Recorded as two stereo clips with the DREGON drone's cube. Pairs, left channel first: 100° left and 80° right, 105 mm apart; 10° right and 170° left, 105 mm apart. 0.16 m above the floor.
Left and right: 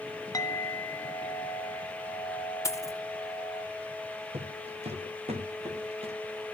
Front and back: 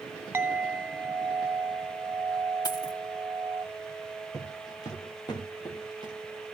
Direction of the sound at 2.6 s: 40° left.